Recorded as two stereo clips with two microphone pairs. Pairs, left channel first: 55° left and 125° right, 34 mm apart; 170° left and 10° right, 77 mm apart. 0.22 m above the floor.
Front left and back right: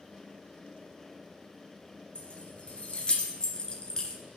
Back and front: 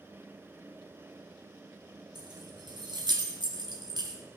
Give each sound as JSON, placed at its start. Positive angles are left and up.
{"t": 2.1, "sound": "keys jangling", "azimuth_deg": 0, "distance_m": 3.0}